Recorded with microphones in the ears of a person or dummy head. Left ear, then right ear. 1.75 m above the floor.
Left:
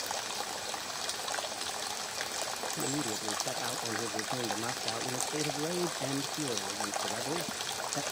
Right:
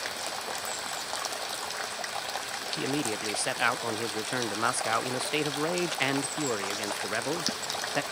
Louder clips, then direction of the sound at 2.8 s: Right 4 dB; 40° right (ahead or behind).